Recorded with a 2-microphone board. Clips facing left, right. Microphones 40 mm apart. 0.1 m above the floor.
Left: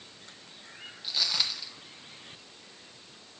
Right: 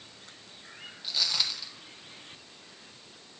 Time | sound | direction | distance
1.0 | footsteps | 5° left (ahead or behind) | 1.5 m